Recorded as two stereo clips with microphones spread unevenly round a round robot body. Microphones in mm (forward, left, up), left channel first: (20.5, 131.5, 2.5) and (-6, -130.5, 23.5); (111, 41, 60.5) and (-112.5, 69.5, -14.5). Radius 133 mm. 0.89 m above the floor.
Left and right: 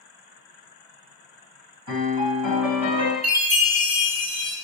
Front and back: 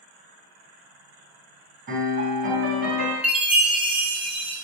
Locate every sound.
1.9 s a piano: 125° right, 3.5 m
3.2 s a chime: 135° right, 0.9 m